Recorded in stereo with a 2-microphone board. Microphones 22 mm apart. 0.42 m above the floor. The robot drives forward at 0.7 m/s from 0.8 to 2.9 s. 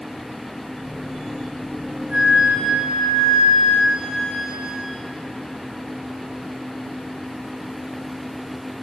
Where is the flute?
75° right (ahead or behind), 9.5 m; by 4.8 s 80° right, 9.5 m.